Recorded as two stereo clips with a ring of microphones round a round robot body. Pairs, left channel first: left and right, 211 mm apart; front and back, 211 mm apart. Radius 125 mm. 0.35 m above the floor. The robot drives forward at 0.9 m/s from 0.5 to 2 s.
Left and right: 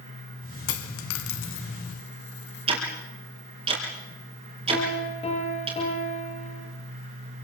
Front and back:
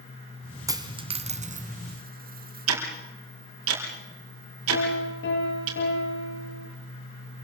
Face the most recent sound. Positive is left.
turn(degrees=30)